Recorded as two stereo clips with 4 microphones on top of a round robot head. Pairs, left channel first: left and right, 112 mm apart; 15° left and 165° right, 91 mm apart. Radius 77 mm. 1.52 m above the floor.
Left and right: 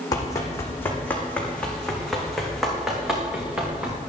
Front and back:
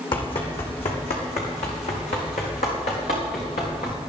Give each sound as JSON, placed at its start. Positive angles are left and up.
{"t": 0.1, "sound": "running footsteps", "azimuth_deg": 30, "distance_m": 3.5}